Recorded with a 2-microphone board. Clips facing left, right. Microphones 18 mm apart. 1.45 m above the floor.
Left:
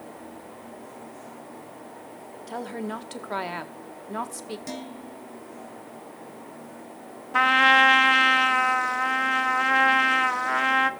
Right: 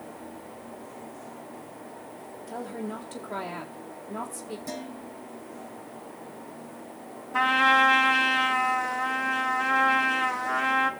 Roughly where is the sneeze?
No sneeze in this recording.